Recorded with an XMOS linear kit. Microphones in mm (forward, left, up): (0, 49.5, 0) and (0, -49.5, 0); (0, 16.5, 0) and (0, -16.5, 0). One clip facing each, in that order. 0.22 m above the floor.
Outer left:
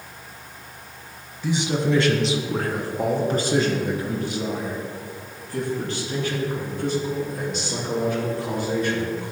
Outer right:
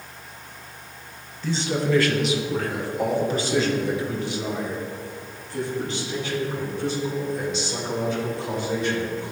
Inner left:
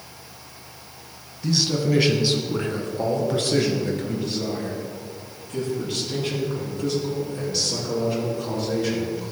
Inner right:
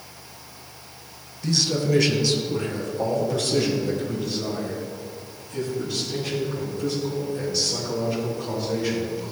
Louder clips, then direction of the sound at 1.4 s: Outer left 1 dB, inner left 1 dB; 10° left (ahead or behind).